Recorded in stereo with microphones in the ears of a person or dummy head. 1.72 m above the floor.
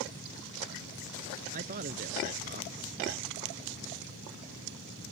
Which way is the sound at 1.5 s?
45° right (ahead or behind).